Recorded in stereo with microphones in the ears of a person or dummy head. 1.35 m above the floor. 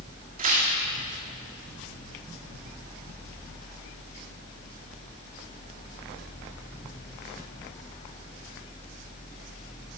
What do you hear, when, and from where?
0.4 s tearing paper: 40° right (ahead or behind), 2 m